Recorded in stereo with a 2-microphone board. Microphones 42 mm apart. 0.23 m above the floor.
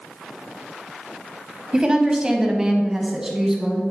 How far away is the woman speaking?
About 1.1 m.